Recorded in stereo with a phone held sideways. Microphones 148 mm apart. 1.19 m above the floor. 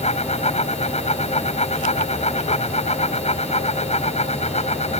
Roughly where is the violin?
I don't hear a violin.